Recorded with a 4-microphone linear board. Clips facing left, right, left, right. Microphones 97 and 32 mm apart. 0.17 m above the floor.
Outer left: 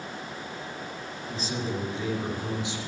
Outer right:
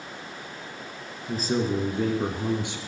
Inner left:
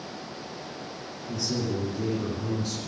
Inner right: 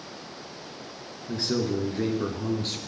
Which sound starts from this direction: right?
A man speaking, at 1.3 s.